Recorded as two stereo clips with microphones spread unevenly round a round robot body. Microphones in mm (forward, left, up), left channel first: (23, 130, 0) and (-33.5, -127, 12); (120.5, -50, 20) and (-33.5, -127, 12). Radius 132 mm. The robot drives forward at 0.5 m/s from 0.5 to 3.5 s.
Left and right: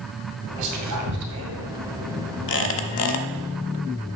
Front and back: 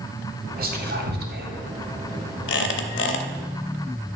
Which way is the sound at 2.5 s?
25° left.